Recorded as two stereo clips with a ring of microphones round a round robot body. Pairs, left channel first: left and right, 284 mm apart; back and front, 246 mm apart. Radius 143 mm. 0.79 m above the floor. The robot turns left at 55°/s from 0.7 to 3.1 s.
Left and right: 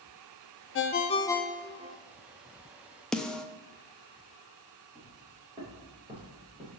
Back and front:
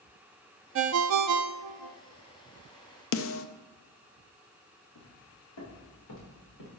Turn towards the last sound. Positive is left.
turn(degrees=-160)